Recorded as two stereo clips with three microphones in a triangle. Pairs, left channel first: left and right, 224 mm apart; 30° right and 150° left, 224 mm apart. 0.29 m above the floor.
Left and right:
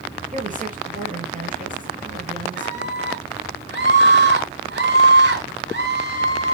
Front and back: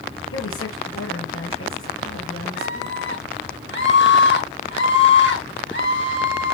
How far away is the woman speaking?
About 5 m.